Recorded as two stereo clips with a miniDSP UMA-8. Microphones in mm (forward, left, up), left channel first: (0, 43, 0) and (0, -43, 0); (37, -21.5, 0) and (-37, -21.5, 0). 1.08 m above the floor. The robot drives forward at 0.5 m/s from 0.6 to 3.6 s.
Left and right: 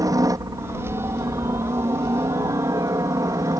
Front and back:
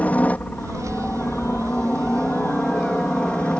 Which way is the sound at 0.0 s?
65° right.